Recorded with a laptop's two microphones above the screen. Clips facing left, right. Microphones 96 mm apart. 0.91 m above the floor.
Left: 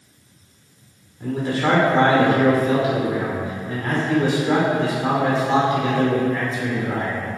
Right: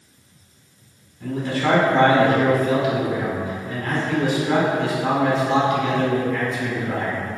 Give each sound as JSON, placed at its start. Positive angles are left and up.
{"t": 1.2, "sound": "a man speaking", "side_deg": 25, "distance_m": 2.0}